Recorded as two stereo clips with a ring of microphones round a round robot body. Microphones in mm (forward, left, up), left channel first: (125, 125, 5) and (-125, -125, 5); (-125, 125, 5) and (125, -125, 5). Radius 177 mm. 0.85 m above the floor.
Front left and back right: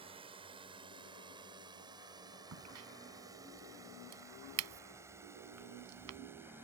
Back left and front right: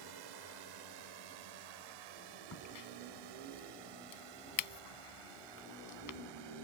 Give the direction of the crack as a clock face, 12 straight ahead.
6 o'clock.